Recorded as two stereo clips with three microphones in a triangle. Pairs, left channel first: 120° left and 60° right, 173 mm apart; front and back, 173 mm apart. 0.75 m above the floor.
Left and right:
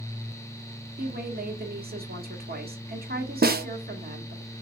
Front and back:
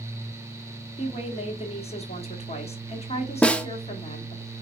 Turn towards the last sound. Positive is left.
turn(degrees=-85)